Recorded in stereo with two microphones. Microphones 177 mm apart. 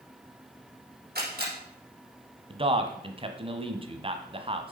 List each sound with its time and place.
1.1 s a camera shutter: 65° right (ahead or behind), 6 m
2.5 s a man speaking: 30° right (ahead or behind), 1.2 m